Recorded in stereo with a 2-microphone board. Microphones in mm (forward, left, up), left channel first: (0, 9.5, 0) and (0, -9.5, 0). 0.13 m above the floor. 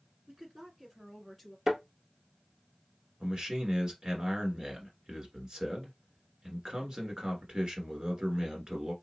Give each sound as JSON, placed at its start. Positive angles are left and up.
{"t": 0.3, "sound": "a woman speaking", "side_deg": -30, "distance_m": 1.9}
{"t": 1.7, "sound": "a thud", "side_deg": -25, "distance_m": 1.4}
{"t": 3.2, "sound": "a man speaking", "side_deg": -40, "distance_m": 1.4}